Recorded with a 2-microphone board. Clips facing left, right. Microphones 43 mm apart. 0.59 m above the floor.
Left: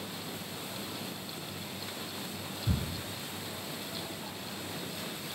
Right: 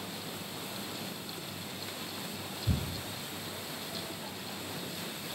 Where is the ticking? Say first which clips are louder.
Left 1 dB; 40° left (ahead or behind), 1.5 m.